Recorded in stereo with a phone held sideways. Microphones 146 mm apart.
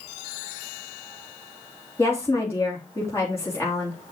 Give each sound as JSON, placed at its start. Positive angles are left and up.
{"t": 2.0, "sound": "a woman speaking", "side_deg": 20, "distance_m": 3.0}